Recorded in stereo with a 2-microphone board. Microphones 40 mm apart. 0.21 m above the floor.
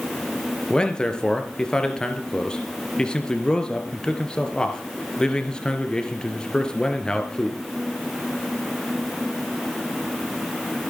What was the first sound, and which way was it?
A man speaking, 20° left (ahead or behind).